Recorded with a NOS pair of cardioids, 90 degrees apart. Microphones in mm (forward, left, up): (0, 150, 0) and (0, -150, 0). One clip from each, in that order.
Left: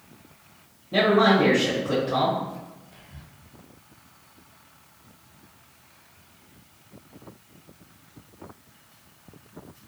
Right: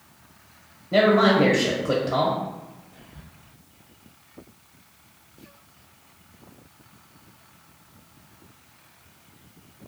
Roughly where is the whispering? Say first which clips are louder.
Right 1 dB; ahead left.